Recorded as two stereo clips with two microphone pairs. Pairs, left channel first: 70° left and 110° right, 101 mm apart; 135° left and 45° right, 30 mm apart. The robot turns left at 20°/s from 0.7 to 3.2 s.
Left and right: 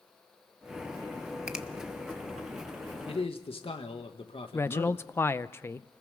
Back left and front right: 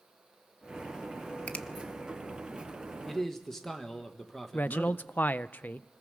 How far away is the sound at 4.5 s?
About 0.5 m.